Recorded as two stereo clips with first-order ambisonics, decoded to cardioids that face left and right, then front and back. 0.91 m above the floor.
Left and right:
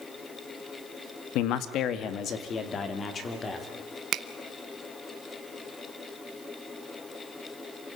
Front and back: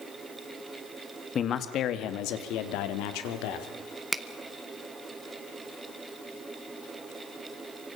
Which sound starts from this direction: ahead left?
A man speaking, at 1.4 s.